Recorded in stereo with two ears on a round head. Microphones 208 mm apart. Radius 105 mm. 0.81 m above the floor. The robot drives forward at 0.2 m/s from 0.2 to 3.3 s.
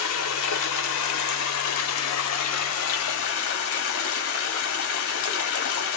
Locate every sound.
0.0 s running water: 70° left (ahead or behind), 0.9 m